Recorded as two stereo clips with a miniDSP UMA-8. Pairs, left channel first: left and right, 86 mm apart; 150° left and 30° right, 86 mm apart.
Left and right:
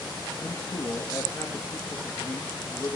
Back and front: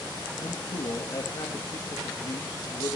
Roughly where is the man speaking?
Behind left.